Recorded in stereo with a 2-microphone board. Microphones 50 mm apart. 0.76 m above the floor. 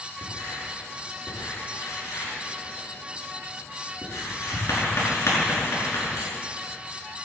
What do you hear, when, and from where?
0.2 s writing: 90° left, 5.5 m